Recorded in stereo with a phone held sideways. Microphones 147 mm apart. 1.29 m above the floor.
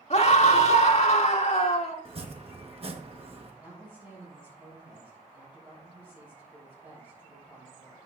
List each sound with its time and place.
0.1 s a scream: 50° left (ahead or behind), 1.9 m
2.0 s chopping: 45° right (ahead or behind), 1.2 m
3.6 s a woman speaking: 15° right (ahead or behind), 4 m